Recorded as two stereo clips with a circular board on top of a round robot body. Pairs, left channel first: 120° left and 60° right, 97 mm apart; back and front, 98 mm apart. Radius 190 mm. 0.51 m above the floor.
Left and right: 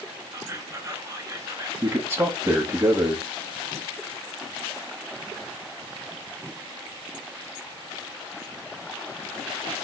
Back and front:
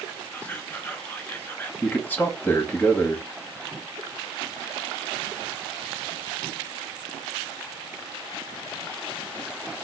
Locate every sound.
0.3 s whispering: 110° right, 1.5 m
1.8 s a man speaking: 115° right, 1.1 m